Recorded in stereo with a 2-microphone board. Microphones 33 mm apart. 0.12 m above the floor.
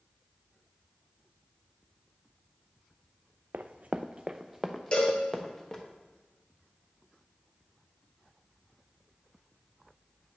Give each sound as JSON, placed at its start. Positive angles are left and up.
{"t": 3.5, "sound": "running footsteps", "side_deg": -70, "distance_m": 0.5}
{"t": 4.9, "sound": "a cowbell", "side_deg": 30, "distance_m": 1.9}